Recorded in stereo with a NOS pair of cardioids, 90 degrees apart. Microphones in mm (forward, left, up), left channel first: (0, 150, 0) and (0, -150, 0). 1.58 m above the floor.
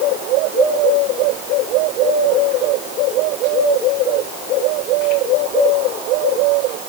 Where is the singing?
I don't hear singing.